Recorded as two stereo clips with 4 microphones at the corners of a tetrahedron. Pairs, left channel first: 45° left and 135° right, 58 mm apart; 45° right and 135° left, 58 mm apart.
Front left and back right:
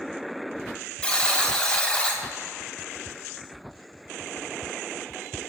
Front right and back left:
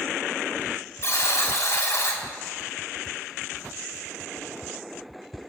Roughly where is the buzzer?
Ahead right.